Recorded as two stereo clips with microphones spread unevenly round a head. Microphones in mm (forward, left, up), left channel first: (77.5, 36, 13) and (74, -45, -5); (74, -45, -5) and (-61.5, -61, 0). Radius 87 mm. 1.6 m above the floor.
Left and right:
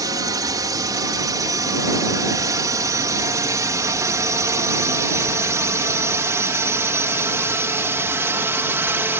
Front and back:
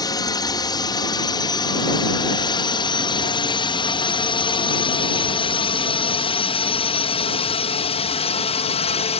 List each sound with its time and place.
0.0 s a drone: 55° right; by 9.2 s 35° right